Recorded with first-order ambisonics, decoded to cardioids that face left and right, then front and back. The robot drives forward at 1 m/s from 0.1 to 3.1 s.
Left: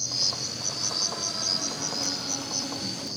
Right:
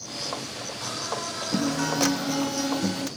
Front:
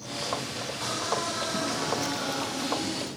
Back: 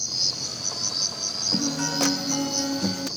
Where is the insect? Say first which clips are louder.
Left 5 dB, back 6 dB; 145° left; by 3.2 s 155° left.